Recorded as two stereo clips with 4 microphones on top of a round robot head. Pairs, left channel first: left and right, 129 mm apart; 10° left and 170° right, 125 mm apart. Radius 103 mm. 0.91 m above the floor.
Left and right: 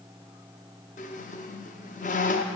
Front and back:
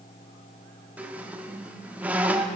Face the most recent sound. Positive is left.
turn(degrees=115)